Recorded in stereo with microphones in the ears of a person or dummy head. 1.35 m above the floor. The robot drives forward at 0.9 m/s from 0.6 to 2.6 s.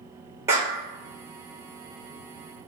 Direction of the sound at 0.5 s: 15° right (ahead or behind).